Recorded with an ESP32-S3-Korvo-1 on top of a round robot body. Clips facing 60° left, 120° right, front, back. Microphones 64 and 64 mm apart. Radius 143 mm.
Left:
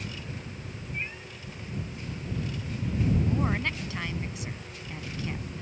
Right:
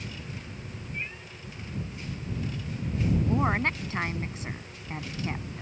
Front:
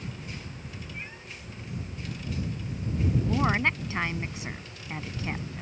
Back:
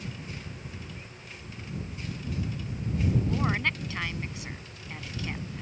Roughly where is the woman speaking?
Ahead right.